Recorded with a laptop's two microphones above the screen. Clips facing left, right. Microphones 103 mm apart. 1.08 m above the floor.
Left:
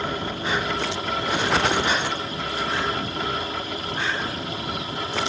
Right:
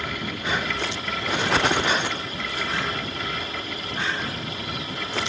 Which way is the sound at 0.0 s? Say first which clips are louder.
Left 3 dB; 35° left (ahead or behind).